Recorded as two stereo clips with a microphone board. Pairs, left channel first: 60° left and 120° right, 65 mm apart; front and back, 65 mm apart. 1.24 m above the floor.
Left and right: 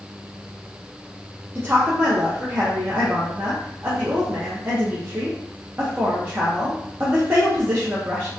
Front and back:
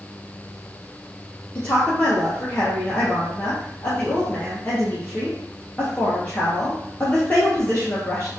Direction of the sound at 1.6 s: 65° right.